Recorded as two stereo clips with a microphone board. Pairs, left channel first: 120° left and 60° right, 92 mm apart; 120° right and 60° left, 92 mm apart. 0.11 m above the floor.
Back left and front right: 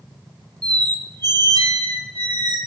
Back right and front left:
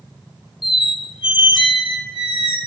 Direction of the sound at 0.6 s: 100° right.